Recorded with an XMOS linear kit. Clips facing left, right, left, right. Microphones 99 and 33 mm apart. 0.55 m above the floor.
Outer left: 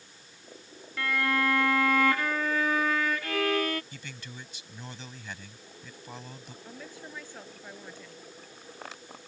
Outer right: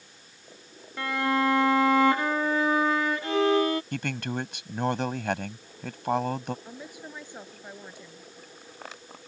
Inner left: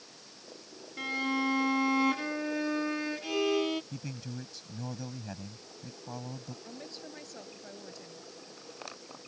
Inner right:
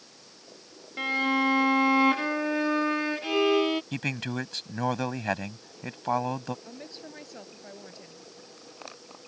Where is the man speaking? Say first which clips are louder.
Outer right 14 dB, inner right 11 dB; 65° right (ahead or behind).